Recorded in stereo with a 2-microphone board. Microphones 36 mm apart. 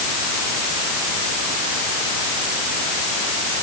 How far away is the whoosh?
I don't hear a whoosh.